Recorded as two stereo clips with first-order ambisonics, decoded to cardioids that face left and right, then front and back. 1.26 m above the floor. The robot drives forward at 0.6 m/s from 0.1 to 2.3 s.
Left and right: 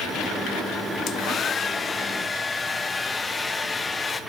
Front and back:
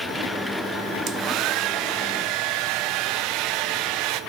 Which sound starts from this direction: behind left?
A hair dryer, at 1.1 s.